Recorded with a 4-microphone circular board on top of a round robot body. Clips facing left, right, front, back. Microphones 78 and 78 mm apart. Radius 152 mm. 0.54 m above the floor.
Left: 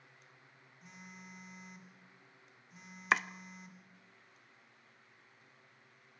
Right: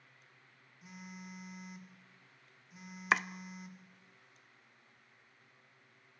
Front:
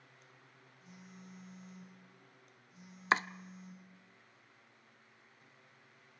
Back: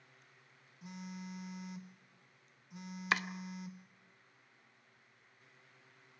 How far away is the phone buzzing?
About 2 m.